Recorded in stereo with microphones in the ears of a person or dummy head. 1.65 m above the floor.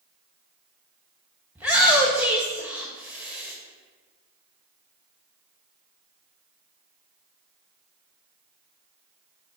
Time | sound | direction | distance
1.6 | a shout | 10° right (ahead or behind) | 1.6 m